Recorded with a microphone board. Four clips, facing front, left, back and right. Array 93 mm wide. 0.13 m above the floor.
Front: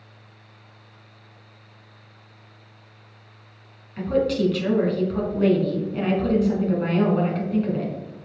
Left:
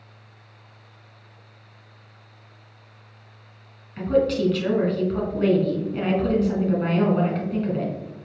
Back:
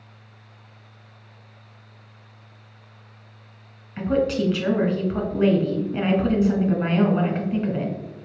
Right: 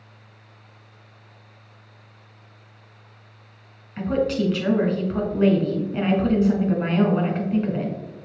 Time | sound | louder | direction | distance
4.0 | a woman speaking | left 2 dB, even | 145° right | 1.2 m